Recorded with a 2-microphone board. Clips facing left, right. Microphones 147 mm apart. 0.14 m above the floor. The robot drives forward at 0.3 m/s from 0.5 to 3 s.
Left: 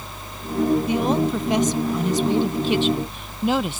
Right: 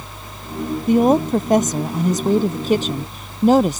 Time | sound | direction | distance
0.9 | a woman speaking | 50° right (ahead or behind) | ?